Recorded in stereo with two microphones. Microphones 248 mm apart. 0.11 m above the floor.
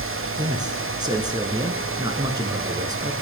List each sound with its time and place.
0.4 s a man speaking: 15° right (ahead or behind), 1.2 m